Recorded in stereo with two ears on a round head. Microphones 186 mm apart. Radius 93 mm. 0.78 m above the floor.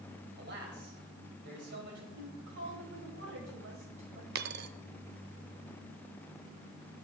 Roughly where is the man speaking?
Right.